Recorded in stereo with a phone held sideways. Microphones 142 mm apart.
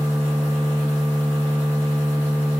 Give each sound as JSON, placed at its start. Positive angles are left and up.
{"t": 0.0, "sound": "a machine running", "side_deg": 15, "distance_m": 0.9}